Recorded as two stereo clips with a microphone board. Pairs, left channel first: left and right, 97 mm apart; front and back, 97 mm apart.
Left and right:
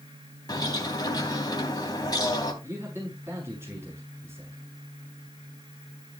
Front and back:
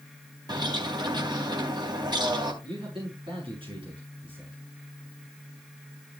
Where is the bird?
135° left, 3 m.